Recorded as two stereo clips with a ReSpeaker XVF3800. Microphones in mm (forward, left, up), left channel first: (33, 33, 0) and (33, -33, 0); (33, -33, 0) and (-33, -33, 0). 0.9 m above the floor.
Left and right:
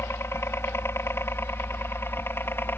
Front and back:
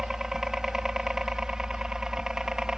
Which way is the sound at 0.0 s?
100° left.